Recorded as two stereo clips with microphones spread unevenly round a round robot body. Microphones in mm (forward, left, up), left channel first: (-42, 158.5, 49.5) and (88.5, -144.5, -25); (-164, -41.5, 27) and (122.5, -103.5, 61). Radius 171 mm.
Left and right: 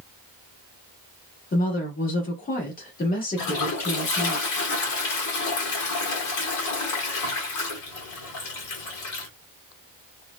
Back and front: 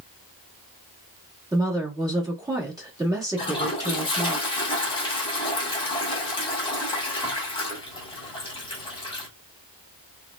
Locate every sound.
1.5 s a woman speaking: 60° left, 1.1 m
3.4 s a toilet flushing: 120° left, 1.0 m